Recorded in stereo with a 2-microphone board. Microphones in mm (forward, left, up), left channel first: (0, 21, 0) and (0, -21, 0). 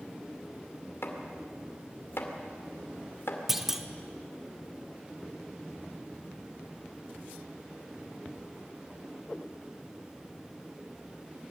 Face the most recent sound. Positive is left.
turn(degrees=-10)  # may be behind; listen again after turning